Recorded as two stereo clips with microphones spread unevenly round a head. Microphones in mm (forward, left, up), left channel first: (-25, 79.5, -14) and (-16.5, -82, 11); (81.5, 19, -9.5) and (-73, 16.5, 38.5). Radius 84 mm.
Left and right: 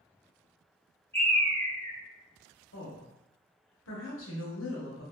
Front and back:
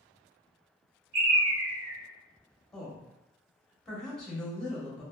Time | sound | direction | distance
1.1 | a bird | 170° left | 1.9 m
2.7 | a woman speaking | 85° left | 1.1 m